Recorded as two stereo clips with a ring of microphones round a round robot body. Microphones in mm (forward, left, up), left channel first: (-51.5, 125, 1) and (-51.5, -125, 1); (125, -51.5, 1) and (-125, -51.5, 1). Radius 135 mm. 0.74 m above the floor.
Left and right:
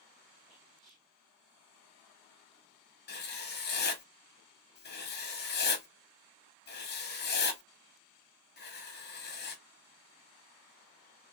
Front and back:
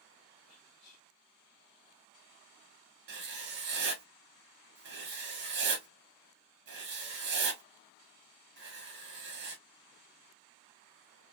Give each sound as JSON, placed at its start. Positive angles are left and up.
{"t": 0.5, "sound": "whispering", "azimuth_deg": 0, "distance_m": 1.9}
{"t": 3.1, "sound": "writing", "azimuth_deg": 135, "distance_m": 1.1}